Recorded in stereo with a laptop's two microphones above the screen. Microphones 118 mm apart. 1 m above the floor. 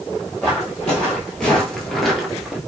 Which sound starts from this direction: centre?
Footsteps, at 0.4 s.